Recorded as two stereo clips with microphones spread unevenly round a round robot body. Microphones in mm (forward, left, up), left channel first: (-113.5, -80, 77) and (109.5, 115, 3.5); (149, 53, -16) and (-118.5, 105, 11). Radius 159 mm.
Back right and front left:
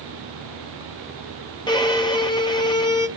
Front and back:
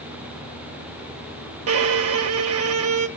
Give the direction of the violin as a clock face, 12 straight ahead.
7 o'clock.